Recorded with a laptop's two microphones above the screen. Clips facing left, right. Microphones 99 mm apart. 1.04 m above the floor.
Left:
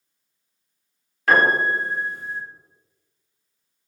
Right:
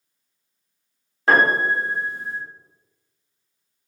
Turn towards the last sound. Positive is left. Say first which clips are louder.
# even
turn(degrees=-25)  # may be behind; listen again after turning